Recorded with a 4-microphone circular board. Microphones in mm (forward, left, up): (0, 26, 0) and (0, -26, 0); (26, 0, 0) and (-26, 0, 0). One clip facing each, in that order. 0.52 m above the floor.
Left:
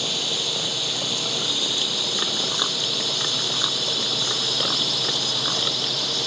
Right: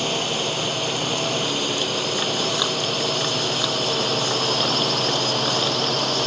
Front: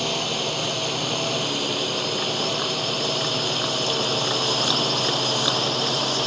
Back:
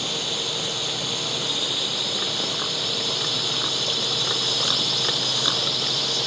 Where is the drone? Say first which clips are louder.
Right 4 dB, front 4 dB; 45° right; by 6.3 s 50° right.